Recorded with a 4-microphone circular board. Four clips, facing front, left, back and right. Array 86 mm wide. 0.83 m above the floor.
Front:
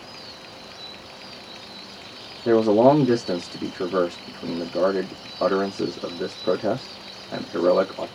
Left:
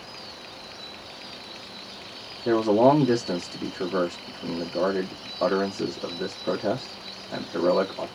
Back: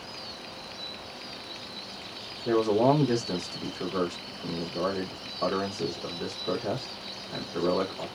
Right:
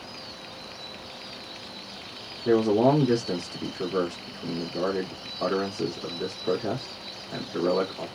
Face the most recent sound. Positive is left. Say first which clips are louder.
# left 2 dB, front 7 dB
turn(degrees=15)